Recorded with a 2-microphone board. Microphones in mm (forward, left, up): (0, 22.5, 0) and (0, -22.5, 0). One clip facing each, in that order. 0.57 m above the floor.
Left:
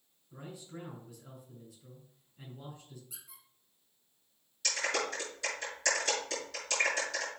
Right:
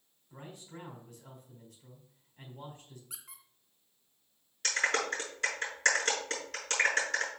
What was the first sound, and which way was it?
A man speaking, 55° right (ahead or behind).